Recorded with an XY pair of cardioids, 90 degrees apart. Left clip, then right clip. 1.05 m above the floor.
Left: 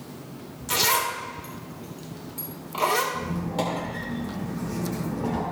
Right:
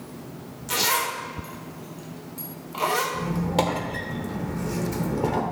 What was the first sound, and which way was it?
A zipper, 20° left.